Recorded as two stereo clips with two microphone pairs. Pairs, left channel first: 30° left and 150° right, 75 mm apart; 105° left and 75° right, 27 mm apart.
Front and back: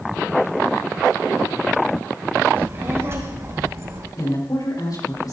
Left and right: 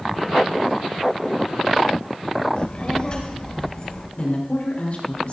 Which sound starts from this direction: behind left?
A child speaking, at 2.6 s.